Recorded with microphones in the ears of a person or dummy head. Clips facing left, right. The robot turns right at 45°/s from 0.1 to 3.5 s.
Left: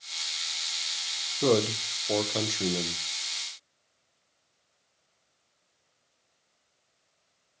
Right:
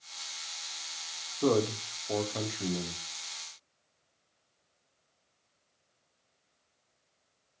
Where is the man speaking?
40° left, 0.5 m; by 3.0 s 110° left, 0.5 m.